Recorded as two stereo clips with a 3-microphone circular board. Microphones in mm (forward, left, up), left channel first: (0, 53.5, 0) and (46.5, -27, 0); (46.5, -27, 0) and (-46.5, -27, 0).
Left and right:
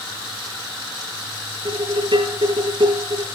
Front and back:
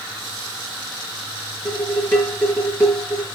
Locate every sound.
1.6 s dishes clattering: 65° right, 8 m